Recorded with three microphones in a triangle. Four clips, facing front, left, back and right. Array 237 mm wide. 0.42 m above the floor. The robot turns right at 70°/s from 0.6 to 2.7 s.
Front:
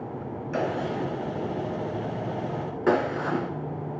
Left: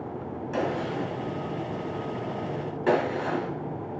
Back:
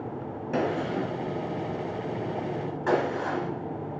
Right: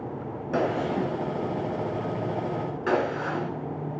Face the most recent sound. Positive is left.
turn(degrees=15)